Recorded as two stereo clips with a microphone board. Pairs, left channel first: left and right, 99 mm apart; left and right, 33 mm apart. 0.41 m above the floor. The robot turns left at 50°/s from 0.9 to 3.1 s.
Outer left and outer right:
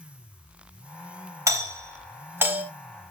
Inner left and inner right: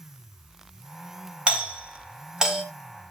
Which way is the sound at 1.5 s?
30° right (ahead or behind).